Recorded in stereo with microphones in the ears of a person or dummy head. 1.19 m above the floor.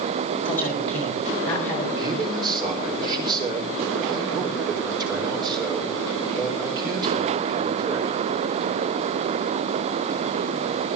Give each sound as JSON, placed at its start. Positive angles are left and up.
{"t": 0.5, "sound": "a man speaking", "side_deg": 10, "distance_m": 8.0}
{"t": 2.0, "sound": "a man speaking", "side_deg": -25, "distance_m": 4.0}